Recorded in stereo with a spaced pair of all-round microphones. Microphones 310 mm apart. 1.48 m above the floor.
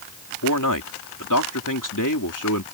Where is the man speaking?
80° left.